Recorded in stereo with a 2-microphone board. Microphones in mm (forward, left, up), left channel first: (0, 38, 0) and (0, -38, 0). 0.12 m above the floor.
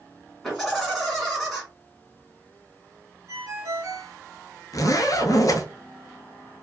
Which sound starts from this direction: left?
A zipper, at 4.7 s.